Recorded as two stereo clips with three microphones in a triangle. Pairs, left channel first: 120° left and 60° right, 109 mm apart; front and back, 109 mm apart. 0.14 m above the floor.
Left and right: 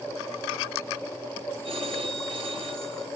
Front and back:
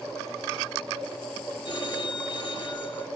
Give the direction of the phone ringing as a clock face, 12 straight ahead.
1 o'clock.